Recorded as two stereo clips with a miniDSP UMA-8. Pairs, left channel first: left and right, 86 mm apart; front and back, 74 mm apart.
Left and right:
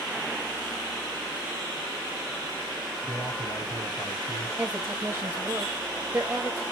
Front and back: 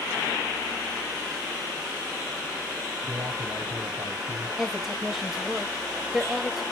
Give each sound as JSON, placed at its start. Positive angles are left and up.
{"t": 3.0, "sound": "a man speaking", "azimuth_deg": 155, "distance_m": 6.0}
{"t": 4.6, "sound": "a woman speaking", "azimuth_deg": -105, "distance_m": 1.4}